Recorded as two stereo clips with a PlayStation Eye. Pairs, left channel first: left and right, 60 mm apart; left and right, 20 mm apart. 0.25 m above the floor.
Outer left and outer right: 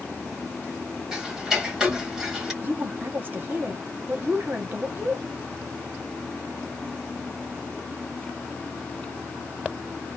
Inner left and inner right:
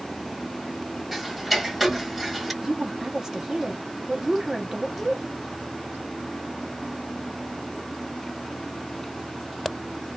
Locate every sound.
1.1 s ticking: 10° right (ahead or behind), 1.3 m
2.6 s a woman speaking: 35° right (ahead or behind), 1.2 m